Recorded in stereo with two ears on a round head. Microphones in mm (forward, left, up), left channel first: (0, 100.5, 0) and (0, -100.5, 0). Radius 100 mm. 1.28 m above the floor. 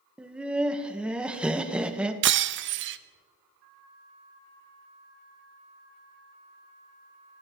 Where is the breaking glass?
55° right (ahead or behind), 0.6 m.